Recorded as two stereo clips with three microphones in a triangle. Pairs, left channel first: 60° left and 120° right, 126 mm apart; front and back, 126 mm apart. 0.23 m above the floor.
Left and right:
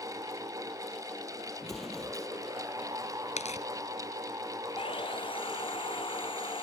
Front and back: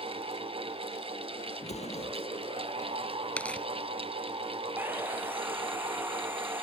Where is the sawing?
105° left.